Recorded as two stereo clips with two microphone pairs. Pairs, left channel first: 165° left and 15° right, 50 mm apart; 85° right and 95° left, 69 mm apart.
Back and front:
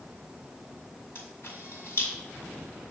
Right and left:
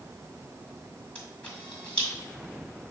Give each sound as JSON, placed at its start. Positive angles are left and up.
{"t": 1.1, "sound": "a camera shutter", "azimuth_deg": -160, "distance_m": 1.6}